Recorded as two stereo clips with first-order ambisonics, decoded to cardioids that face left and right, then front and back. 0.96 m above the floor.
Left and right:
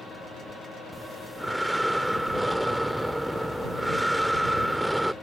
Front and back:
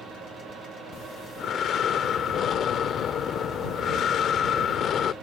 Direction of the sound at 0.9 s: 5° right.